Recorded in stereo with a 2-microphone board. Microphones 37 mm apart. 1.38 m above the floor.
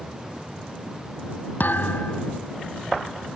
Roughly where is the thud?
Left.